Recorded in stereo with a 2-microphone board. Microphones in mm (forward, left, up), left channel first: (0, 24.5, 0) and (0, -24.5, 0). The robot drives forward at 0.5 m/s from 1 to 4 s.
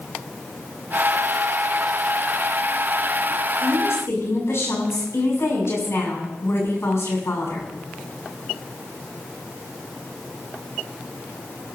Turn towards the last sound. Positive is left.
turn(degrees=65)  # may be behind; listen again after turning